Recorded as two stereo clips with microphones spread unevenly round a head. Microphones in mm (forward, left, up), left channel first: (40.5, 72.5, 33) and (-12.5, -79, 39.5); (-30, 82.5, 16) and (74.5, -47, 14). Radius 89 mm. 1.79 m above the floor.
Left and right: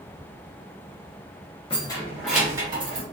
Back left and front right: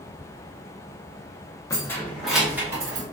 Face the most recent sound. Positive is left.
turn(degrees=-105)